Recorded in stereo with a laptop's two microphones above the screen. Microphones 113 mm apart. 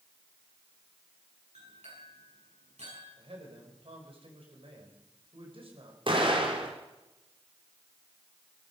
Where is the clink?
85° right, 9 m.